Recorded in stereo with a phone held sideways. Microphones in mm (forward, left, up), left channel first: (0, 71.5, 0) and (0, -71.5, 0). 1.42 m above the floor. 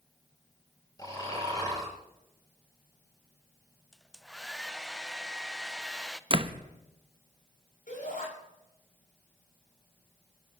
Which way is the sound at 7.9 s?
80° left.